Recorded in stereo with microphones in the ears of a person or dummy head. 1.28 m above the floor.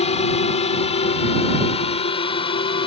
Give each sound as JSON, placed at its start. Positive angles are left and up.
{"t": 0.0, "sound": "a drone", "side_deg": 35}